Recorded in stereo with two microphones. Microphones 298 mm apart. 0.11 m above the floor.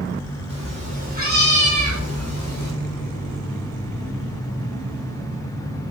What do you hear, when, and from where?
0.5 s a cat meowing: 20° right (ahead or behind), 4.5 m; by 2.7 s 70° right (ahead or behind), 3.5 m